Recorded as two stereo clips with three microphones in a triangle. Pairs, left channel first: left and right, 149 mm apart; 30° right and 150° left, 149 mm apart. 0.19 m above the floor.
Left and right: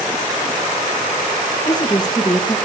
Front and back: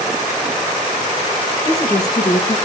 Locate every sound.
1.6 s a woman speaking: 30° left, 3 m